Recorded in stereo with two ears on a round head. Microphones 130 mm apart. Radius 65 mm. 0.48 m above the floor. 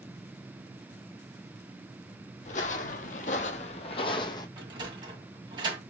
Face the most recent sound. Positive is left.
turn(degrees=-30)  # may be behind; listen again after turning